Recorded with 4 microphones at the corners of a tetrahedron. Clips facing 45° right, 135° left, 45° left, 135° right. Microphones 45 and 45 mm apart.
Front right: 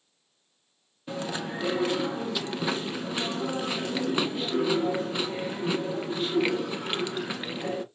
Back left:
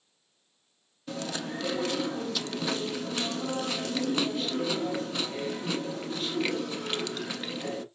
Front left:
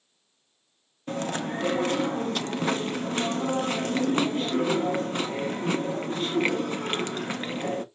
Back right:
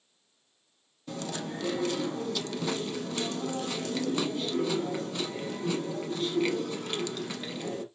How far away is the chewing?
About 0.5 m.